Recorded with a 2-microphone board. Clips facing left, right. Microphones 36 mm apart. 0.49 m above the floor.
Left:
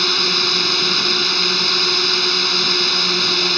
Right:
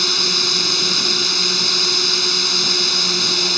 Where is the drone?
20° left (ahead or behind).